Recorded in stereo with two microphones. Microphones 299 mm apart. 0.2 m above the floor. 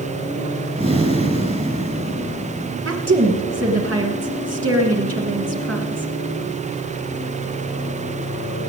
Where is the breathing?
25° right (ahead or behind), 1.9 m.